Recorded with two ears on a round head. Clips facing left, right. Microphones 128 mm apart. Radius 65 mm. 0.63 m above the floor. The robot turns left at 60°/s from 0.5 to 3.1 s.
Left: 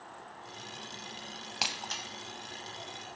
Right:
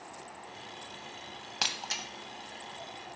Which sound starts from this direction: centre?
Breaking glass, at 1.6 s.